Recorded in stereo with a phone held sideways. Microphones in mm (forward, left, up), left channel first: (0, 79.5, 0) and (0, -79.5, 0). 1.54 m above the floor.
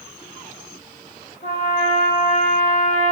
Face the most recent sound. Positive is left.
turn(degrees=75)  # may be behind; listen again after turning